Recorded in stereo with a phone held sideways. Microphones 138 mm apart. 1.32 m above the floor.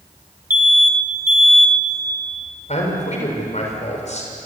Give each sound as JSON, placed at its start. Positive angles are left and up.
{"t": 0.5, "sound": "an alarm", "side_deg": -70, "distance_m": 2.5}
{"t": 2.7, "sound": "a man speaking", "side_deg": 55, "distance_m": 6.0}